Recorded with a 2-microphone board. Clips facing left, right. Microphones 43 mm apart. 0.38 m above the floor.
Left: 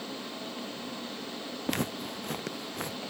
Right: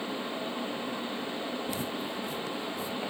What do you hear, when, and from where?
1.7 s footsteps: 65° left (ahead or behind)